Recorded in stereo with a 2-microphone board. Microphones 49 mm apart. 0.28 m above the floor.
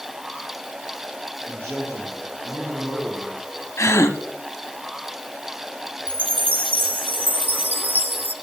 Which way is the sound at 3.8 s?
55° left (ahead or behind).